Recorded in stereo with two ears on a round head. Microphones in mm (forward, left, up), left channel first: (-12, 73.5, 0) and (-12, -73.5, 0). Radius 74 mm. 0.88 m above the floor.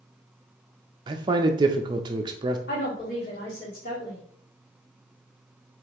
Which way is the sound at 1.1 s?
25° right (ahead or behind).